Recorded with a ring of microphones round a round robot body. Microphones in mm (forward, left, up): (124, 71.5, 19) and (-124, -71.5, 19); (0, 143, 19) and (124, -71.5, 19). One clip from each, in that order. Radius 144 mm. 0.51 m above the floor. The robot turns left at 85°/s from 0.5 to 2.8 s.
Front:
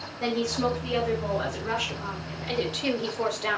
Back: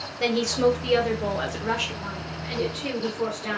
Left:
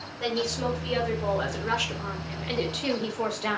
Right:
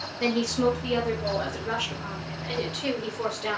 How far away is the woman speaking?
About 1.2 m.